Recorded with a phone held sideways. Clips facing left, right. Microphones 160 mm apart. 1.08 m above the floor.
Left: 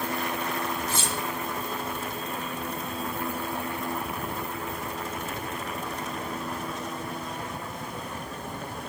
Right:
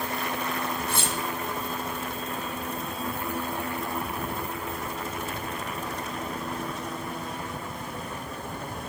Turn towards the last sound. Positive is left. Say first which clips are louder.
# right 1 dB
turn(degrees=-60)  # may be behind; listen again after turning